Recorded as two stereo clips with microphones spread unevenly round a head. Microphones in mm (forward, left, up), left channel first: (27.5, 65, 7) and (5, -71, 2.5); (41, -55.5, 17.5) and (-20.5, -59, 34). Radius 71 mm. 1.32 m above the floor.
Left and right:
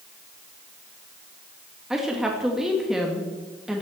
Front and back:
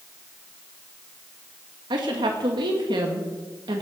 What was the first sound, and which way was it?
A woman speaking, 175° left.